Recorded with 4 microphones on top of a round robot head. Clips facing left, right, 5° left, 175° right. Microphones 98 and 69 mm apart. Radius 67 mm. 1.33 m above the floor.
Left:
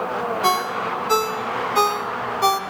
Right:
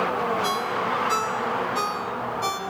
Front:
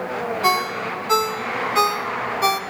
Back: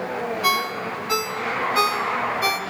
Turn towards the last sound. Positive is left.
turn(degrees=65)